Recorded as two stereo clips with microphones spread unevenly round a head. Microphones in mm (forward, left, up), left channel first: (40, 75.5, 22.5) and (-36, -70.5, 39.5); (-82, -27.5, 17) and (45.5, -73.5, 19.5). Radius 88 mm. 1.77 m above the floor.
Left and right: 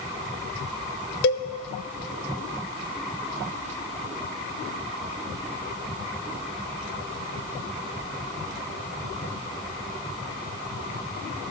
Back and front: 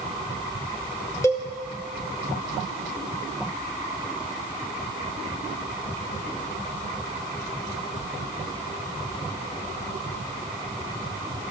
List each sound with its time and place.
1.2 s a cowbell: 85° left, 0.6 m